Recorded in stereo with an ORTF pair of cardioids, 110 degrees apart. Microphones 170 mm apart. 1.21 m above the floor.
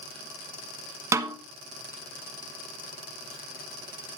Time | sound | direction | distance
1.1 | a snare drum | 15° right | 1.4 m